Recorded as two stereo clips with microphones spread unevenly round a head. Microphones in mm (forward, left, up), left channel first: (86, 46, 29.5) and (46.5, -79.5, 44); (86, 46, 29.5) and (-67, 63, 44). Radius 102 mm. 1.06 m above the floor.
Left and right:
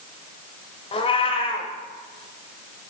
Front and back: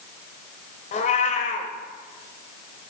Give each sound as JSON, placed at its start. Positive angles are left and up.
{"t": 0.9, "sound": "a cat meowing", "azimuth_deg": 30, "distance_m": 1.2}